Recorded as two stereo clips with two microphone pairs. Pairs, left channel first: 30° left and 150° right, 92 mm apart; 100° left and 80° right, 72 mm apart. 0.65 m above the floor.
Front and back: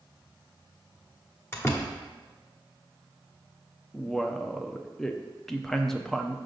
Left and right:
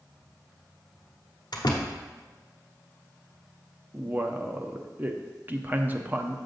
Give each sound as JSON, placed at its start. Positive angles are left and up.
{"t": 1.5, "sound": "a door slam", "azimuth_deg": 95, "distance_m": 1.1}
{"t": 3.9, "sound": "a man speaking", "azimuth_deg": -55, "distance_m": 0.6}